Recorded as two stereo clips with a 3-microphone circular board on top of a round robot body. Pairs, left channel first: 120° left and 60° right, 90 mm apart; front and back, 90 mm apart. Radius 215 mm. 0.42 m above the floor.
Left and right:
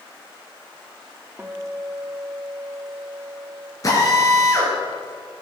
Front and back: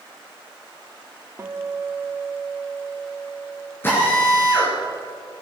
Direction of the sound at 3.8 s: 65° left.